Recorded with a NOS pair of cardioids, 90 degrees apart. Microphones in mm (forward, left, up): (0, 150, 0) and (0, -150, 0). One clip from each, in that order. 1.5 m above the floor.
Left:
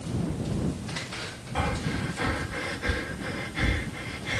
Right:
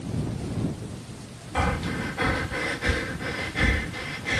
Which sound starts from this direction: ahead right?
Breathing, at 1.6 s.